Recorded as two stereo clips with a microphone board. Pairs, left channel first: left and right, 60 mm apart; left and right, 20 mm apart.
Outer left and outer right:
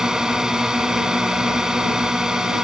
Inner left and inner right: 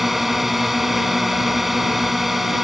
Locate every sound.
0.0 s a drone: 10° right (ahead or behind)